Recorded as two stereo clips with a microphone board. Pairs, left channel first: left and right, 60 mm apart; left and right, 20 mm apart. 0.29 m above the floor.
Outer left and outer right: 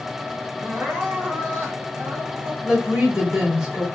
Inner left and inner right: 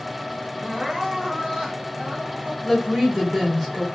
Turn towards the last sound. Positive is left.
turn(degrees=-15)  # may be behind; listen again after turning